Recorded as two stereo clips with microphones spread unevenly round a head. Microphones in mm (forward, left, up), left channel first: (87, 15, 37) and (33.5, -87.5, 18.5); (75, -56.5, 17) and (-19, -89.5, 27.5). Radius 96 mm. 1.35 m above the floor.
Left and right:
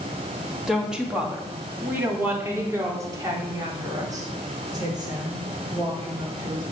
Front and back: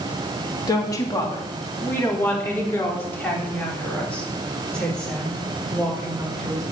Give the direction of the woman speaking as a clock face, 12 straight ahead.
1 o'clock.